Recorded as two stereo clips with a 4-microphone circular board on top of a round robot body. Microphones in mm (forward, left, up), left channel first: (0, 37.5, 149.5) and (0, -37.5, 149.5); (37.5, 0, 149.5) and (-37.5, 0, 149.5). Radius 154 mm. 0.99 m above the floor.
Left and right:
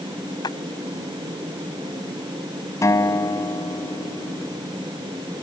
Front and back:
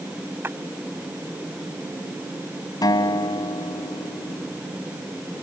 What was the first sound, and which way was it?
A clap, 120° left.